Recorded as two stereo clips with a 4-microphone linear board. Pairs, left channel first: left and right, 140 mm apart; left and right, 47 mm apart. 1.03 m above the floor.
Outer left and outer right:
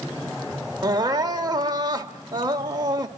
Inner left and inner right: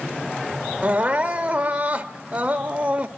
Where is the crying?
30° right (ahead or behind), 1.3 m.